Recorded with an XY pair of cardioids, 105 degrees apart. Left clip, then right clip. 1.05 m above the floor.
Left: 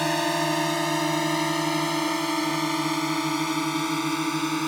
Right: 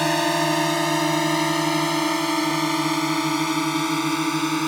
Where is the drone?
25° right.